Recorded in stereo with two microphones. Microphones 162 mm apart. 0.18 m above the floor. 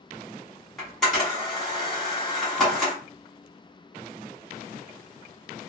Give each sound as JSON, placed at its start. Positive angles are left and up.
{"t": 0.8, "sound": "a camera shutter", "side_deg": 0, "distance_m": 1.7}